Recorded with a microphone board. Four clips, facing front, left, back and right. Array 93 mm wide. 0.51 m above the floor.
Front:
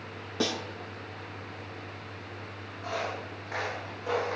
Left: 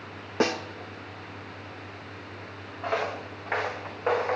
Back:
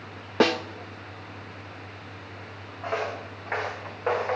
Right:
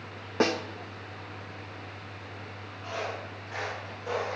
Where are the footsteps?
120° left, 3.5 m; by 4.4 s 135° left, 3.5 m.